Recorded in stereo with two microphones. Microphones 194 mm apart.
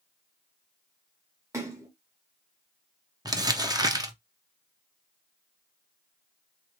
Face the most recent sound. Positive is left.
turn(degrees=-20)  # may be behind; listen again after turning